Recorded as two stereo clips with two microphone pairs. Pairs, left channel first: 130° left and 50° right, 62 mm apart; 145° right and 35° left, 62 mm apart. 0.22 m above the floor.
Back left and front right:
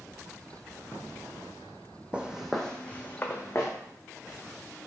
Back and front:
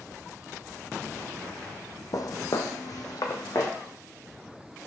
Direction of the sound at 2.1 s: 120° right.